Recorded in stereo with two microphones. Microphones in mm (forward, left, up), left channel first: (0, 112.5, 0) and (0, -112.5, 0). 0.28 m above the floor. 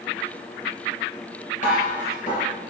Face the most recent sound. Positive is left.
turn(degrees=35)  # may be behind; listen again after turning